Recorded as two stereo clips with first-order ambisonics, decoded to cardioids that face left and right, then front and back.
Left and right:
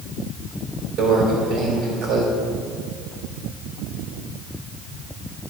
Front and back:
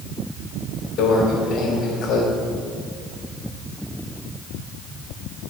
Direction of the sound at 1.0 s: 50° right.